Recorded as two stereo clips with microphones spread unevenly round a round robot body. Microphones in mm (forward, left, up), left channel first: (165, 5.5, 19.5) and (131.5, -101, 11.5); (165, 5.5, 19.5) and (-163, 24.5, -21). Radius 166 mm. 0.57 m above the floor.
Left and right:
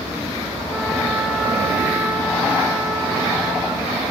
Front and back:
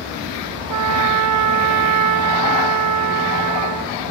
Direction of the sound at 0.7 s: 165° left.